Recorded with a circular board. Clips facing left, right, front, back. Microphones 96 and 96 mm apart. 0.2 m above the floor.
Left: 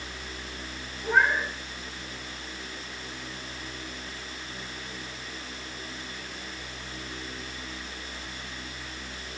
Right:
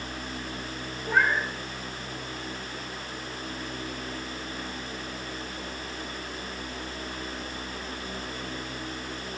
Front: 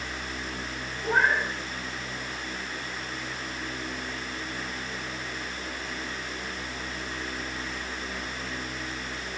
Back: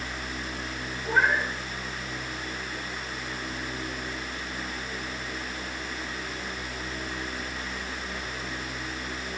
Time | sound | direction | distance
1.0 | a cat meowing | 20° left | 9 m